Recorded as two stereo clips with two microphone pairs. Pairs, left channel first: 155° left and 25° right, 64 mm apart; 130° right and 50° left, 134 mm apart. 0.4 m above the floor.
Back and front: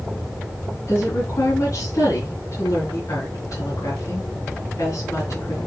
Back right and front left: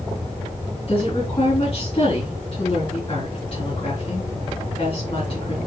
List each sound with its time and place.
0.9 s a woman speaking: 175° right, 3.5 m